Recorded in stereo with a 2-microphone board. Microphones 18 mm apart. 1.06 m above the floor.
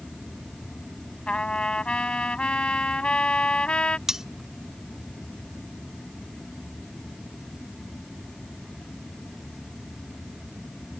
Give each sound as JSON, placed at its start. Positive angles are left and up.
{"t": 1.3, "sound": "a trumpet", "side_deg": 75}
{"t": 4.1, "sound": "cutlery clinking", "side_deg": -30}